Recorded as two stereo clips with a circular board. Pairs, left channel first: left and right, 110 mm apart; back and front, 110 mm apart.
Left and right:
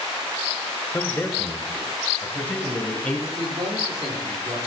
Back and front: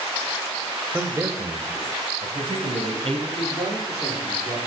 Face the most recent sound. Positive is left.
turn(degrees=-125)